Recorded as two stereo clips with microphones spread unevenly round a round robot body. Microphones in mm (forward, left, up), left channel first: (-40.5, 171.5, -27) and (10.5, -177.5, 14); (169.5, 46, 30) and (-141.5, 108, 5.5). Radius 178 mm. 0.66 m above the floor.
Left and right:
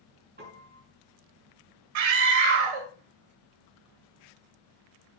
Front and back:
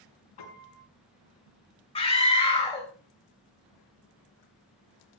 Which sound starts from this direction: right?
A scream, at 1.9 s.